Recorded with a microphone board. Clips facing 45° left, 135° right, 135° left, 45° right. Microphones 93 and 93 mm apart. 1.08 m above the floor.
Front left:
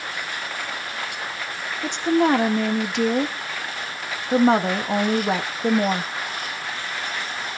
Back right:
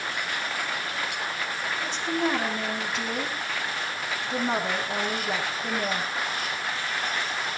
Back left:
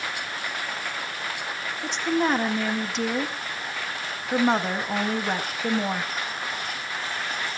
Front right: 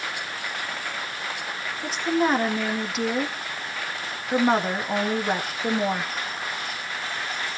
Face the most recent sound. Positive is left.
turn(degrees=40)